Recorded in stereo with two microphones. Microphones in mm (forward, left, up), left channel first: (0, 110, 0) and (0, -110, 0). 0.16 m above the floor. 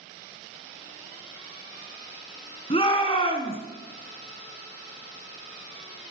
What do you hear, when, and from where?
2.7 s a shout: 25° left (ahead or behind), 1.6 m